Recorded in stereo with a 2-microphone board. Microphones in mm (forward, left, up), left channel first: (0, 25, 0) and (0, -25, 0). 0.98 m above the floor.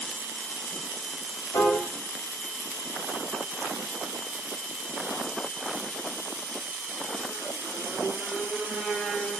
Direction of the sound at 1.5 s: 70° left (ahead or behind).